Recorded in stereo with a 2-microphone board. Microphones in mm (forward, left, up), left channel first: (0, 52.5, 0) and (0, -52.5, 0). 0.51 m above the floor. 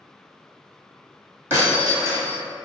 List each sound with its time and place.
1.5 s breaking glass: 20° right (ahead or behind), 1.4 m